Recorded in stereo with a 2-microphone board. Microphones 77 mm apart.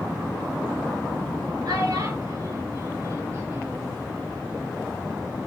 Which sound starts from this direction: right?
A child speaking, at 1.6 s.